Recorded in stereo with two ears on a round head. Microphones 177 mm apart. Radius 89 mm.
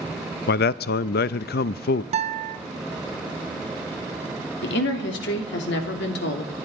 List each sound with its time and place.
0.5 s a man speaking: 55° left (ahead or behind), 0.5 m
2.1 s a guitar: 35° right (ahead or behind), 0.9 m
4.6 s a woman speaking: 65° left (ahead or behind), 2.5 m